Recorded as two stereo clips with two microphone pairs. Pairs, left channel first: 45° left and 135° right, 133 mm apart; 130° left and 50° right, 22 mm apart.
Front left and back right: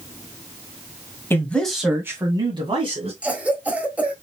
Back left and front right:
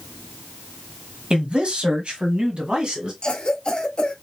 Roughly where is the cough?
Behind left.